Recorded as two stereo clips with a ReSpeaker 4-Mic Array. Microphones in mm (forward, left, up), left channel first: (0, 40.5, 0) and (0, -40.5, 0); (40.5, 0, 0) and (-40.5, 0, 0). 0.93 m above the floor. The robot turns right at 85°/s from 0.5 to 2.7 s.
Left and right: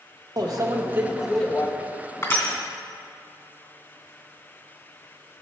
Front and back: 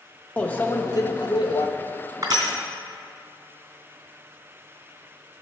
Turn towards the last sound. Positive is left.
turn(degrees=180)